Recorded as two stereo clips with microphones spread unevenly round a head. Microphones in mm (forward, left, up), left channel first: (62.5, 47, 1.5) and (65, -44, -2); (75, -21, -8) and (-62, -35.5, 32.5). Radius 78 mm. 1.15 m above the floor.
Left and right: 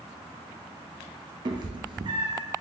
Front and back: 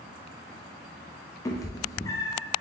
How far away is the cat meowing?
About 0.5 m.